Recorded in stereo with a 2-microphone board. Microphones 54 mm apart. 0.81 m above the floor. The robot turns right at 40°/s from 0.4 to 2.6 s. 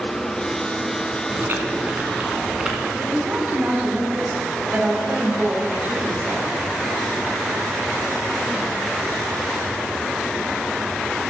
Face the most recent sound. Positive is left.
turn(degrees=-30)  # may be behind; listen again after turning